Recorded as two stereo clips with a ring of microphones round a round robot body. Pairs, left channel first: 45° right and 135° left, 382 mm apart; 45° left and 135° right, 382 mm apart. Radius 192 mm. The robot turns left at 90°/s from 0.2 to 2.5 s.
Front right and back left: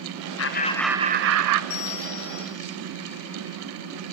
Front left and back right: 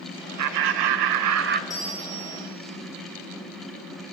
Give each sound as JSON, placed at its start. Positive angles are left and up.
{"t": 0.4, "sound": "laughter", "azimuth_deg": -90, "distance_m": 2.0}
{"t": 1.7, "sound": "a bell", "azimuth_deg": -35, "distance_m": 2.0}